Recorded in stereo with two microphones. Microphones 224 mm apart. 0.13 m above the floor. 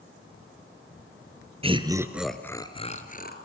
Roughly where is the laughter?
Right.